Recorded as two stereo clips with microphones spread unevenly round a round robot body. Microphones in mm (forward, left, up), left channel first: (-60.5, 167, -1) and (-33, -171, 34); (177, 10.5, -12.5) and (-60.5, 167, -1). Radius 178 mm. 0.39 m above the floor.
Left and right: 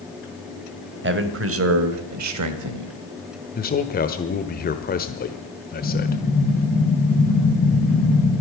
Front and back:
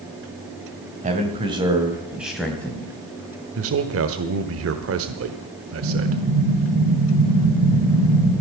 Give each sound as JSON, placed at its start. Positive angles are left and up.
{"t": 1.0, "sound": "a man speaking", "azimuth_deg": -145, "distance_m": 2.0}
{"t": 3.5, "sound": "a man speaking", "azimuth_deg": 140, "distance_m": 1.1}
{"t": 5.8, "sound": "an explosion", "azimuth_deg": 160, "distance_m": 6.5}